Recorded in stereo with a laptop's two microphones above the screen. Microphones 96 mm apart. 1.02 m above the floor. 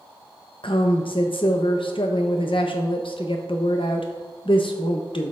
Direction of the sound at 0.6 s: 65° left (ahead or behind).